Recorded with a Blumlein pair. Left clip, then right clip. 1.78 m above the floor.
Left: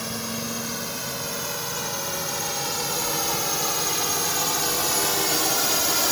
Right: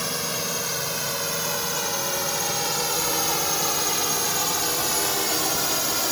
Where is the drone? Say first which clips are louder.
Right 3 dB; 15° right; by 6.1 s 10° left.